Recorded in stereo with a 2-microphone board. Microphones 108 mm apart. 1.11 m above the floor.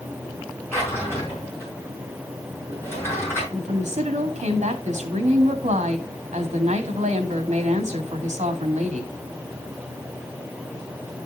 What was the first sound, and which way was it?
A drawer, 20° left (ahead or behind).